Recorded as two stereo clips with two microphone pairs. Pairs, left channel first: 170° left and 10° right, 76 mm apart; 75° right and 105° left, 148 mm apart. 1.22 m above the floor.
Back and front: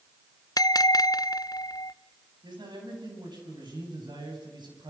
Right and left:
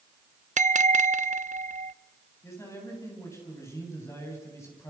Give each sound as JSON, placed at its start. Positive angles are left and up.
{"t": 0.6, "sound": "a bell", "azimuth_deg": 140, "distance_m": 0.6}
{"t": 2.4, "sound": "a man speaking", "azimuth_deg": -5, "distance_m": 9.5}